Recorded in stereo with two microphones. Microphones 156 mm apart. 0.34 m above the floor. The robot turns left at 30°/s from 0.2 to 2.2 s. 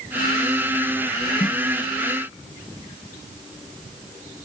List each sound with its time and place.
1.4 s a snare drum: 30° left (ahead or behind); by 1.6 s 25° left (ahead or behind)